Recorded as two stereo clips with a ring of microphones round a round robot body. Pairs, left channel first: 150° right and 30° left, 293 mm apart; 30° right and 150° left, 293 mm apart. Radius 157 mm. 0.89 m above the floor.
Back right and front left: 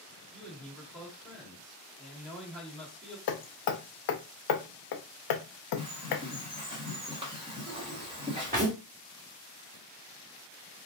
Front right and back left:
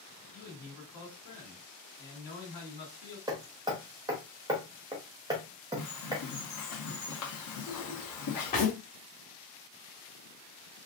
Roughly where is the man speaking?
Ahead right.